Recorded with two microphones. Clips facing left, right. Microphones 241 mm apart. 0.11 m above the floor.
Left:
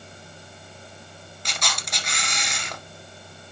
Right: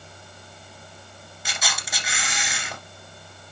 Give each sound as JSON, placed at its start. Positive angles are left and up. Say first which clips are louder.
{"t": 1.4, "sound": "a camera shutter", "louder": "even", "side_deg": -5, "distance_m": 1.6}